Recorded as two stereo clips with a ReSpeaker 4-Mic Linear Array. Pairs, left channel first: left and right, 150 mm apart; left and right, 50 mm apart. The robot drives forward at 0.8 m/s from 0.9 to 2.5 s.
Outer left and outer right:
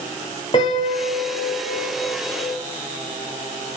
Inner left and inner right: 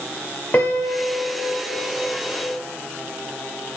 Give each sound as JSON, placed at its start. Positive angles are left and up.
{"t": 0.5, "sound": "a piano", "side_deg": 35, "distance_m": 2.5}